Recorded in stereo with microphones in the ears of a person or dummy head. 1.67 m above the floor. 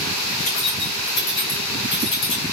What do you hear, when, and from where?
0.4 s keys jangling: 65° left (ahead or behind), 5.5 m; by 2.4 s 70° left (ahead or behind), 4.5 m